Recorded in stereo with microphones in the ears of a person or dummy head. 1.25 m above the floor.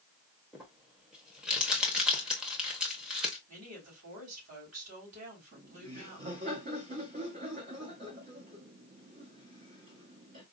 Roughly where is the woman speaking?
Right.